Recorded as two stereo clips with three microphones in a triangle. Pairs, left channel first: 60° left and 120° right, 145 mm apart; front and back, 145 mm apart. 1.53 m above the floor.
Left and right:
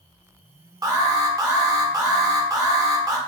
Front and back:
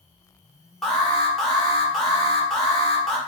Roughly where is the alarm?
Right.